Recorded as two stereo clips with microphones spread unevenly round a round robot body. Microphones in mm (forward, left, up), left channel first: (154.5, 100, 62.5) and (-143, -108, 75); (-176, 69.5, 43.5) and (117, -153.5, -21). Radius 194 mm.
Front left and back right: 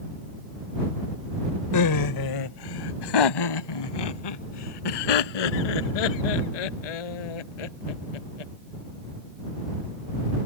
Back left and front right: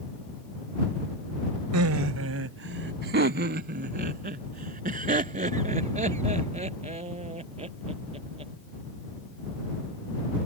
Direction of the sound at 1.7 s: 5° left.